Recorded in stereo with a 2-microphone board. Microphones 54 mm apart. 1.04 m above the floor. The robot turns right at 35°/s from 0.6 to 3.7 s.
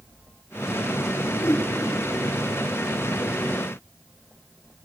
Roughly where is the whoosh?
Left.